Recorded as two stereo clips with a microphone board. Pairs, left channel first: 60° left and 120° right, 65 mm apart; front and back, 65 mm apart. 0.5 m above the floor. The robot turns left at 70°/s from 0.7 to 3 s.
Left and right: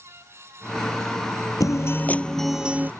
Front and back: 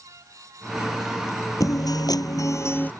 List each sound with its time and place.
1.6 s a guitar: 30° left; by 2.9 s 60° right